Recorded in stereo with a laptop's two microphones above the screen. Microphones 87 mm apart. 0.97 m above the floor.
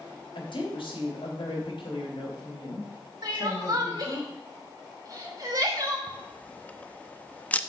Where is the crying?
50° right (ahead or behind), 2.5 m.